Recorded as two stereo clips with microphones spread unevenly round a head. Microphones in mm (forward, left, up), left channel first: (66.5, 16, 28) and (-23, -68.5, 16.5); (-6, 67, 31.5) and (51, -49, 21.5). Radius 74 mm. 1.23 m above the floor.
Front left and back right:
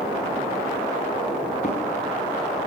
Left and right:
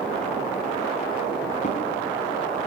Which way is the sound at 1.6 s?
90° left.